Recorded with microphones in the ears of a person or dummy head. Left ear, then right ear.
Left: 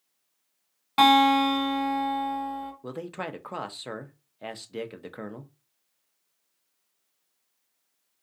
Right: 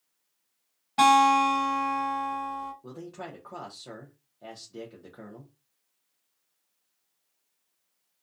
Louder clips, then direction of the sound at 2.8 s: Left 6 dB; 60° left (ahead or behind).